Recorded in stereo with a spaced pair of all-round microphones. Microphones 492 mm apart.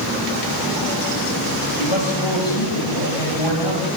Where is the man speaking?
70° left (ahead or behind), 9 m; by 4.0 s 65° left (ahead or behind), 9.5 m.